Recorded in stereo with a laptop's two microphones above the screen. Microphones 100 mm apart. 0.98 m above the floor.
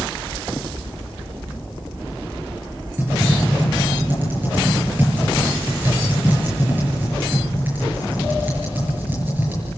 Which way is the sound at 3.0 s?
20° right (ahead or behind).